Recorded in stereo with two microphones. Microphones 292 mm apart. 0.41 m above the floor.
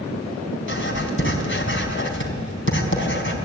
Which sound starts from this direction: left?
Writing, at 0.7 s.